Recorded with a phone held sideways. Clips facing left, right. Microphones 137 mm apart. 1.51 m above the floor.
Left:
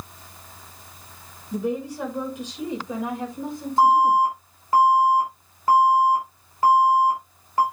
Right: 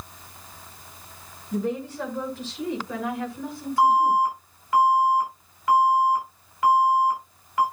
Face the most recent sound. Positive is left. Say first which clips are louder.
# left 2 dB
turn(degrees=35)  # may be behind; listen again after turning